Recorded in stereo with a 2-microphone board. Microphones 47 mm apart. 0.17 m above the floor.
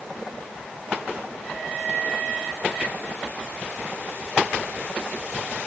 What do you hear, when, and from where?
Only background noise.